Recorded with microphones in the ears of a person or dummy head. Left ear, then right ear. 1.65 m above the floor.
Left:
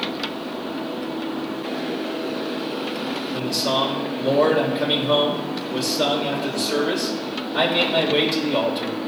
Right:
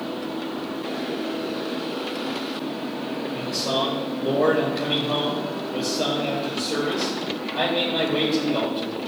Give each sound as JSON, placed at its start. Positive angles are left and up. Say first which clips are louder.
{"t": 3.3, "sound": "a man speaking", "louder": "left 3 dB", "side_deg": 40, "distance_m": 1.9}